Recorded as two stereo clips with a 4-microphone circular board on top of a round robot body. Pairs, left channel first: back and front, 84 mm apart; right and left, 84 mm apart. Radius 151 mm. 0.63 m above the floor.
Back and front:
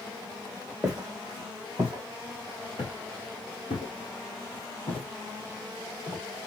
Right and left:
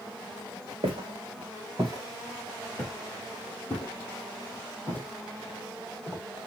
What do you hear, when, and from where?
0.8 s footsteps: 80° left, 0.9 m; by 6.2 s 150° right, 2.5 m